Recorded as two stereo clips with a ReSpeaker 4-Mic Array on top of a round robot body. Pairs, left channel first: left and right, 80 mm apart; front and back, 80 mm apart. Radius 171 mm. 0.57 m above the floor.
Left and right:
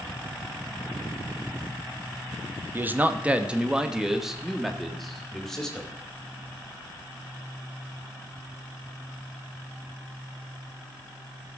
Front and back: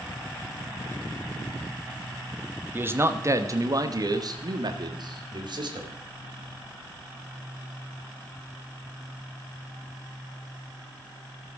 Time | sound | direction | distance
2.7 | a man speaking | 135° right | 1.2 m